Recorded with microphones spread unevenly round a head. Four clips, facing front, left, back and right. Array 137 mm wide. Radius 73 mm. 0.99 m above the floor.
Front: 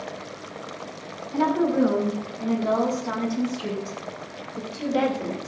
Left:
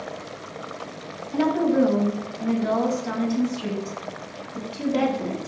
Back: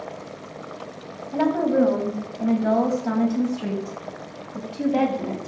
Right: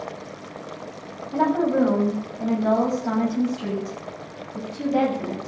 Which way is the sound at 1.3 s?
145° right.